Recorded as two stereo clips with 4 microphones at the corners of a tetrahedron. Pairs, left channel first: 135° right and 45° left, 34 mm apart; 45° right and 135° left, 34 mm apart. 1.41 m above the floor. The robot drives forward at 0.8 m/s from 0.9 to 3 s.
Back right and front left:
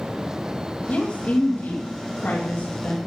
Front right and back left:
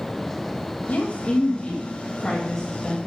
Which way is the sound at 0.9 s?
85° right.